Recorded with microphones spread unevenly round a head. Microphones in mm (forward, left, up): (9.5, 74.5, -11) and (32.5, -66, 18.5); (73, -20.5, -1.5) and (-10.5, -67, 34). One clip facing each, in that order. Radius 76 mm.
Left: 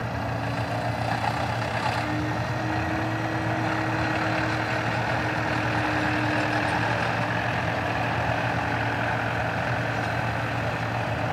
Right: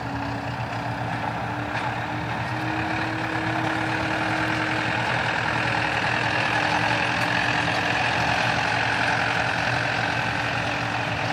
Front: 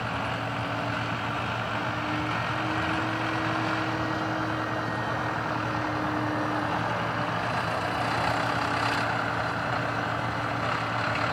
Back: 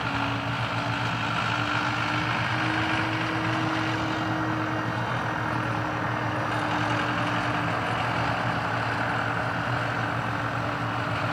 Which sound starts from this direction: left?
A fan, at 0.0 s.